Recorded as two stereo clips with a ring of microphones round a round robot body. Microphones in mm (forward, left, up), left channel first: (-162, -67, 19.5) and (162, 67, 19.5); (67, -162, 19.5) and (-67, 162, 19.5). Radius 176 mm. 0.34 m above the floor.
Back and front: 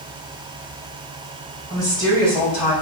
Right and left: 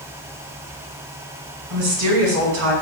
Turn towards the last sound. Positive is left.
turn(degrees=135)